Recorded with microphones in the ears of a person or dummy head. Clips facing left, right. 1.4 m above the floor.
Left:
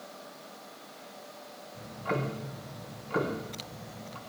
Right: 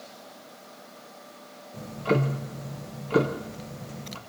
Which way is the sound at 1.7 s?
45° right (ahead or behind).